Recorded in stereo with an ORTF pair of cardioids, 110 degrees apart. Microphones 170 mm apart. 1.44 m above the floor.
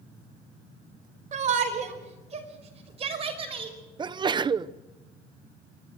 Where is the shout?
45° right, 5 m; by 3.8 s 30° right, 5.5 m.